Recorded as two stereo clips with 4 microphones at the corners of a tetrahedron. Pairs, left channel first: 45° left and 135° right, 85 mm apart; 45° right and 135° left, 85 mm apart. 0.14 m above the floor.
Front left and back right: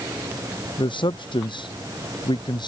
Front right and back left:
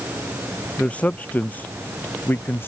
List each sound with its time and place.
0.8 s a man speaking: 30° left; by 2.7 s 20° left